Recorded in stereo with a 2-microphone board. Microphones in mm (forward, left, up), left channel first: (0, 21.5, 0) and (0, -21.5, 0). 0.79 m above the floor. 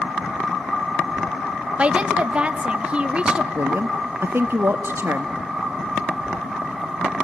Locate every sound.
1.8 s a woman speaking: 25° right (ahead or behind), 0.9 m
3.5 s a woman speaking: 60° right (ahead or behind), 0.8 m